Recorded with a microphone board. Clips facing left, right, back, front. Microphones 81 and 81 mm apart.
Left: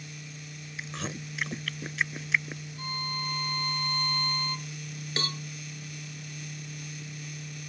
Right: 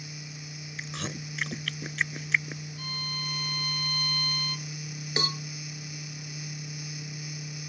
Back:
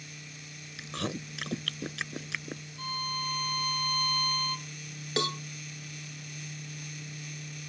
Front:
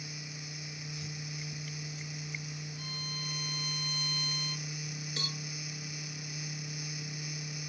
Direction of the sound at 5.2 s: 165° right.